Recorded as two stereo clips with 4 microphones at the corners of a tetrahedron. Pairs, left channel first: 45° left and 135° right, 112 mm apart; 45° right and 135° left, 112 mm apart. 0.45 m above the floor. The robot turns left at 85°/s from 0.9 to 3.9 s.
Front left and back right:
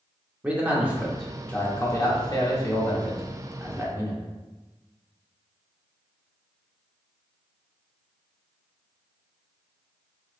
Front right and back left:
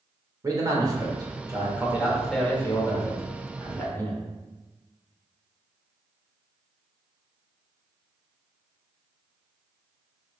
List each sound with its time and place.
0.4 s a man speaking: 155° left, 0.8 m; by 4.2 s 100° right, 0.8 m